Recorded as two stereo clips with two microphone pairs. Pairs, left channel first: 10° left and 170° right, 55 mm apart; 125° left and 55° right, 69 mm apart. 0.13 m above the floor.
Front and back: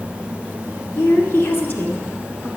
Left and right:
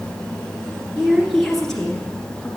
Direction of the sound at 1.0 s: 15° left.